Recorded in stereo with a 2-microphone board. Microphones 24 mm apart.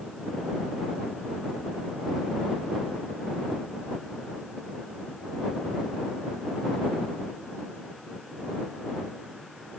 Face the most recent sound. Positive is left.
No sound to turn to.